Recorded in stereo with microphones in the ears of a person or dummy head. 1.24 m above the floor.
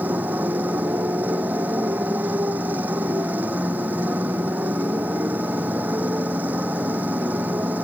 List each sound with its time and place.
0.0 s a motorcycle: 15° right (ahead or behind)